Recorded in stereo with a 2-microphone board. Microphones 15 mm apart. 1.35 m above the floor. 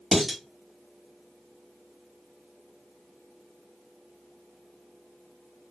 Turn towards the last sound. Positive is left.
turn(degrees=-15)  # may be behind; listen again after turning